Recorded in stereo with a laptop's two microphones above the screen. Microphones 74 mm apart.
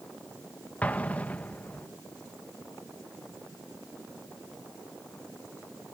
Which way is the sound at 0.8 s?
20° left (ahead or behind).